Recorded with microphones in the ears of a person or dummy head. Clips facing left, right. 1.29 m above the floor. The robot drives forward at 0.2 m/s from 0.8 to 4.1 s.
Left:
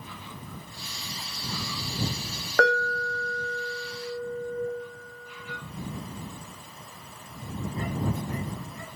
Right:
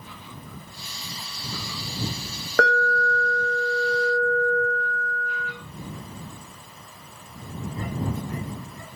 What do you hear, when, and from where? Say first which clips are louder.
2.6 s an alarm: right 2 dB; 60° right (ahead or behind), 0.8 m; by 5.5 s 55° right (ahead or behind), 0.9 m